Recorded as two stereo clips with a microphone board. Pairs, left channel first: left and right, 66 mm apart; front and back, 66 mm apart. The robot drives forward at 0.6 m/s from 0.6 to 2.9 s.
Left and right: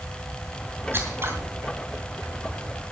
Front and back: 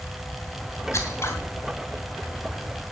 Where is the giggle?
No giggle in this recording.